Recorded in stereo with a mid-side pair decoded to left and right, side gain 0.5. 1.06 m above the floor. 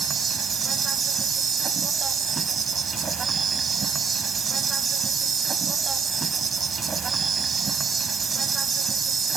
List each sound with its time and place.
0.0 s an insect: 35° right